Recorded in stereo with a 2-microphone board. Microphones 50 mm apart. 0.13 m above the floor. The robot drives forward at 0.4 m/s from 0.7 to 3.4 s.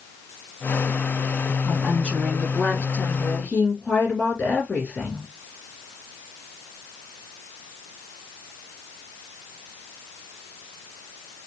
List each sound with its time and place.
1.6 s a woman speaking: 25° left (ahead or behind), 1.9 m; by 5.3 s 30° left (ahead or behind), 1.8 m